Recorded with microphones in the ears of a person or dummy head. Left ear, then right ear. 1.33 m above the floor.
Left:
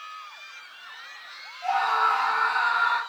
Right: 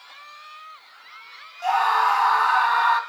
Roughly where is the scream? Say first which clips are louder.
Right 3 dB; right.